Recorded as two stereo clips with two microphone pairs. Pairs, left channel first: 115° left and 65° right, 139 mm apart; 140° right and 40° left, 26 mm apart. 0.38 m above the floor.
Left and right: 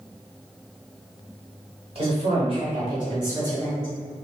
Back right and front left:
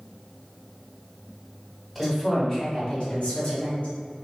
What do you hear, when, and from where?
1.9 s a woman speaking: 50° right, 1.8 m; by 3.9 s 130° right, 2.5 m